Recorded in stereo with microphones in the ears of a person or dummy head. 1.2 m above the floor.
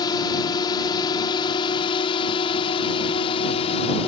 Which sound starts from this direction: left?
A drone, at 0.0 s.